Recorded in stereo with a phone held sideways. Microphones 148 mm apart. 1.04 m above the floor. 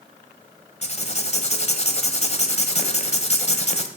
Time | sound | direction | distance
0.8 | writing | 45° left (ahead or behind) | 1.1 m